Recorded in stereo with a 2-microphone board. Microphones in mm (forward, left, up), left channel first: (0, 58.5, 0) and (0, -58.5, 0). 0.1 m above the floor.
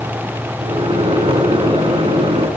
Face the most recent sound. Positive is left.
turn(degrees=-45)  # may be behind; listen again after turning